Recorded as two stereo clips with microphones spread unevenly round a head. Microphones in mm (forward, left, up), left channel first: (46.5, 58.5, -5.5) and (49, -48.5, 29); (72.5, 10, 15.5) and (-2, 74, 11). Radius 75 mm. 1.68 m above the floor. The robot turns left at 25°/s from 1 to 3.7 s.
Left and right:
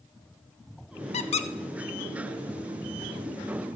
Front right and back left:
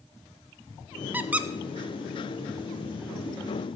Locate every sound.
1.1 s a squeak: 75° left, 0.7 m; by 1.5 s 65° left, 0.7 m